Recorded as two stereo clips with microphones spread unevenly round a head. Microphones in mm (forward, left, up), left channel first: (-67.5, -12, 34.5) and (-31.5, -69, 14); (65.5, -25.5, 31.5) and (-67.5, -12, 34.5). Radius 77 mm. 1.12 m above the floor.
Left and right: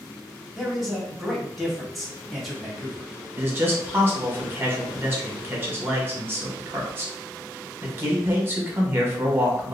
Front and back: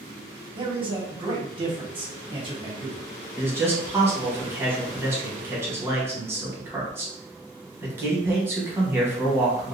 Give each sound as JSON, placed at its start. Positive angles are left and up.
{"t": 0.6, "sound": "a man speaking", "azimuth_deg": -135, "distance_m": 1.3}
{"t": 3.4, "sound": "a man speaking", "azimuth_deg": -115, "distance_m": 1.3}